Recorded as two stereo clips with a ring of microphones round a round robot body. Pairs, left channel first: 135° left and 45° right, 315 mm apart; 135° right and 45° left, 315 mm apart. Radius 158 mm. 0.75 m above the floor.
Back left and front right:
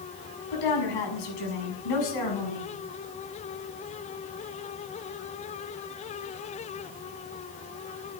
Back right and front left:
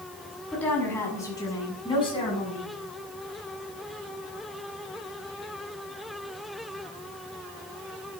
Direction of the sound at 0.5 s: 140° left.